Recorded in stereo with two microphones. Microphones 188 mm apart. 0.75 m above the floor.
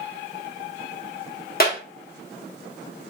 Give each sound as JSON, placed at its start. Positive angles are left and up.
{"t": 1.6, "sound": "a clap", "side_deg": 50, "distance_m": 1.5}